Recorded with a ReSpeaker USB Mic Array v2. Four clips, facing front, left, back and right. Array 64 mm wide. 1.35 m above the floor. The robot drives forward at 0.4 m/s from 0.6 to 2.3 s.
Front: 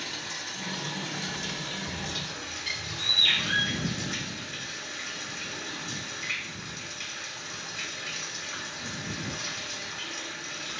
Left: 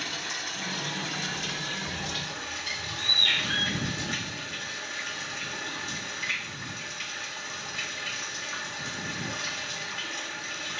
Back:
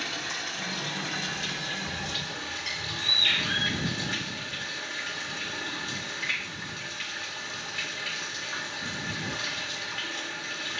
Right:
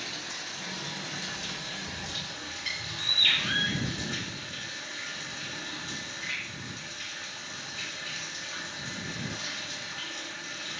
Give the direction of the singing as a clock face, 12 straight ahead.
I don't hear singing.